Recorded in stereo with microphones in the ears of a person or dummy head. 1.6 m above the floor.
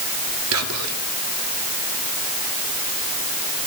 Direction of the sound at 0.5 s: 75° right (ahead or behind).